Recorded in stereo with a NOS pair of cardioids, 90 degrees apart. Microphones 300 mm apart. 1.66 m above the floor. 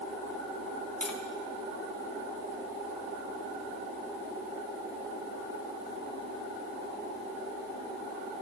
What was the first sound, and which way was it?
Tapping, 5° left.